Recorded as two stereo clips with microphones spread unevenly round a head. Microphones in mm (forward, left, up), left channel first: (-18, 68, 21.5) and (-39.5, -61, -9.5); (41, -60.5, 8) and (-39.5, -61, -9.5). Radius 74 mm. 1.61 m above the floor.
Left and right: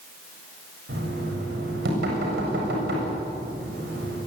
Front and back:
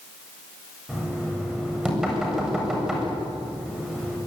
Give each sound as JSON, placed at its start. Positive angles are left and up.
{"t": 0.9, "sound": "knocking", "azimuth_deg": -95, "distance_m": 8.0}